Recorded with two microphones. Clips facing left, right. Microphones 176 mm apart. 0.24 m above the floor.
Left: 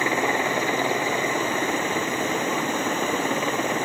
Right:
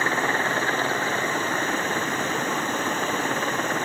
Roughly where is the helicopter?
Centre.